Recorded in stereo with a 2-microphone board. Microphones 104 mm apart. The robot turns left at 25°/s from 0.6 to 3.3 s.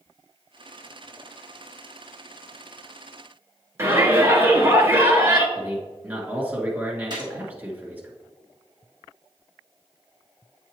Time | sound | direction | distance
3.8 | a shout | 25° right (ahead or behind) | 1.6 m
5.5 | a man speaking | 15° right (ahead or behind) | 1.8 m
7.1 | a gunshot | 45° right (ahead or behind) | 1.4 m